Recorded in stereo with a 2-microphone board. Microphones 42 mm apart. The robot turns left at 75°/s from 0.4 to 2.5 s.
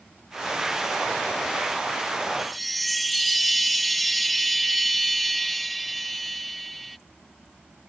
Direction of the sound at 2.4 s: 5° right (ahead or behind).